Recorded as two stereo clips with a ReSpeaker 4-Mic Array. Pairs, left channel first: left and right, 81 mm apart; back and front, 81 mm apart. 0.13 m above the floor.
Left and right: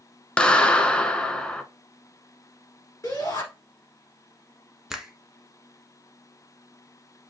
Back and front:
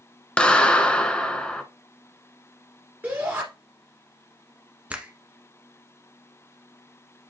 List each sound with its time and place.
0.4 s a clap: 135° left, 0.9 m
3.0 s a shout: 60° left, 1.9 m
4.9 s a finger snap: 15° right, 1.0 m